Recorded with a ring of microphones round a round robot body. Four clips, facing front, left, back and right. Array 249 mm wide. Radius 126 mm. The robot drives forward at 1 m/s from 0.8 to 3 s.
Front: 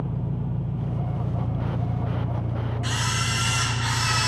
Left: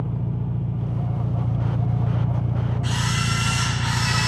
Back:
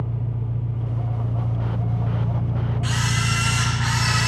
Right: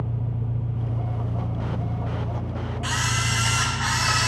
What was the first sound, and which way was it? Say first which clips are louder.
An engine running: left 3 dB, even; 40° left.